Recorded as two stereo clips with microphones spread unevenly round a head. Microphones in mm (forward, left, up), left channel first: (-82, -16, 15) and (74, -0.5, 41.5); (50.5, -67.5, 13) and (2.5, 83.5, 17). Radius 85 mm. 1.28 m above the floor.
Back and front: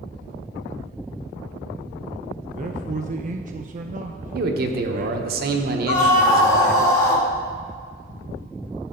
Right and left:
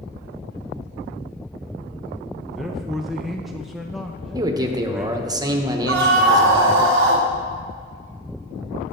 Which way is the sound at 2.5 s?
15° left.